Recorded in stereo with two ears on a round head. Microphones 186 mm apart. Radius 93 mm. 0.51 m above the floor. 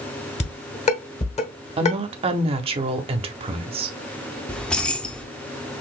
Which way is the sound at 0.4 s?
30° left (ahead or behind).